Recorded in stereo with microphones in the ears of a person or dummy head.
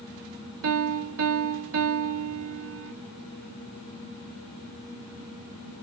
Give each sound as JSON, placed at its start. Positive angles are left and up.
{"t": 0.6, "sound": "a piano", "side_deg": -70, "distance_m": 0.6}